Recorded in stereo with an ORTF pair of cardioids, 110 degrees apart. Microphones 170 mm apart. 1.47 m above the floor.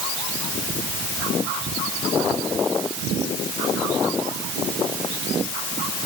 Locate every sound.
Only background noise.